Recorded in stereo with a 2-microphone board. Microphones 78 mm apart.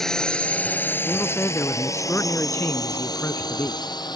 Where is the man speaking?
30° left (ahead or behind).